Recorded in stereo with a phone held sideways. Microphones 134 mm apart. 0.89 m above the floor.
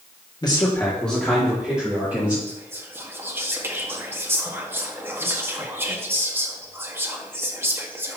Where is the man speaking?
30° left (ahead or behind), 1.6 m; by 2.4 s 15° right (ahead or behind), 4 m.